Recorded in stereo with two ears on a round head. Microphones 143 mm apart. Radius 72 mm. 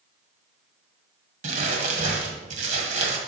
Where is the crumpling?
50° right (ahead or behind), 1.6 m.